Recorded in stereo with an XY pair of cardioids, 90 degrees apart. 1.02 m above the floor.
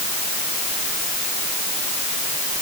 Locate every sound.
Only background noise.